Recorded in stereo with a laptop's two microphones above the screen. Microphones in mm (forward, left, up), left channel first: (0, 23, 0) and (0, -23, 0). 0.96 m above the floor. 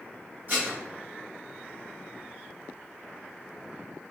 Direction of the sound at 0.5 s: 50° right (ahead or behind).